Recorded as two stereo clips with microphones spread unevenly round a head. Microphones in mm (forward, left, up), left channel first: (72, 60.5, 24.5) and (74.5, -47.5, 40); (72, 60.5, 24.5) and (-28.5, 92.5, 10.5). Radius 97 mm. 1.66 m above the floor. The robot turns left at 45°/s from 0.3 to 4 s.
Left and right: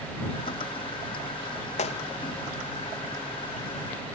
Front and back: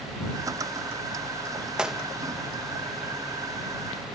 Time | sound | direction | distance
1.8 | a gunshot | 80° left | ?